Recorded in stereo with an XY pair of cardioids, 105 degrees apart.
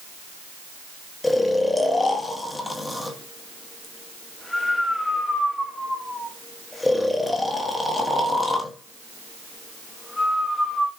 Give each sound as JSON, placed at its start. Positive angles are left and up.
{"t": 1.2, "sound": "snoring", "azimuth_deg": 15, "distance_m": 0.9}